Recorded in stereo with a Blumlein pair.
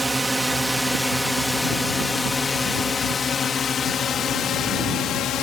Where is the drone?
10° right; by 5.4 s 30° left.